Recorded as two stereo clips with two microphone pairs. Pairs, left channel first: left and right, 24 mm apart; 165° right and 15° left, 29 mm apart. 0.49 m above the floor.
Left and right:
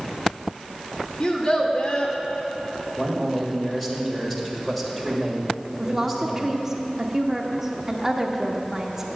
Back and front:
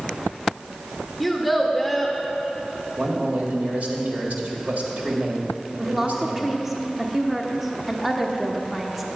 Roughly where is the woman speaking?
Ahead right.